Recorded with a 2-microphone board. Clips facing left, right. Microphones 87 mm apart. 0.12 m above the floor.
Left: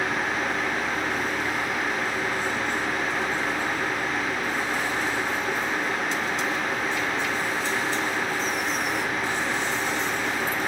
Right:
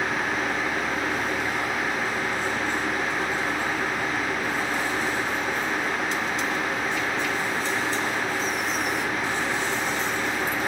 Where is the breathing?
No breathing in this recording.